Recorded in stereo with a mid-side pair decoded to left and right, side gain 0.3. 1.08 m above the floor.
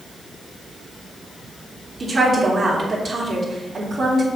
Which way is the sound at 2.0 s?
50° right.